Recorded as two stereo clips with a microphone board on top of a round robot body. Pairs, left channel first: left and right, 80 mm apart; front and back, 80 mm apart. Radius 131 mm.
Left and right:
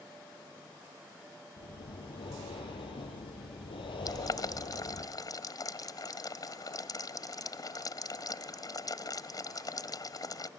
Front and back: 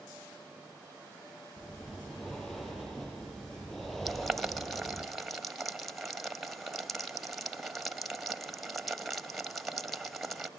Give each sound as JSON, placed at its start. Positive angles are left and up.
{"t": 1.6, "sound": "breathing", "azimuth_deg": 85, "distance_m": 8.0}
{"t": 4.0, "sound": "boiling", "azimuth_deg": 90, "distance_m": 1.6}